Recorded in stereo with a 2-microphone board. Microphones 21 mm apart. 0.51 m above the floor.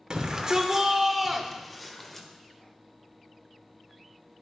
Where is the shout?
45° right (ahead or behind), 1.1 m; by 2.3 s 15° left (ahead or behind), 1.5 m.